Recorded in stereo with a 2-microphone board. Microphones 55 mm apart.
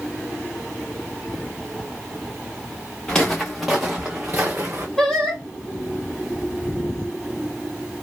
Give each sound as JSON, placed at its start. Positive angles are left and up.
{"t": 3.1, "sound": "footsteps", "side_deg": 15, "distance_m": 1.3}
{"t": 5.0, "sound": "singing", "side_deg": 5, "distance_m": 1.5}